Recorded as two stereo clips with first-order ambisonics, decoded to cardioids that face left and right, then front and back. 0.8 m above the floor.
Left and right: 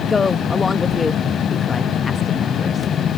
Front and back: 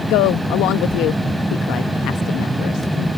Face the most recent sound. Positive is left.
turn(degrees=15)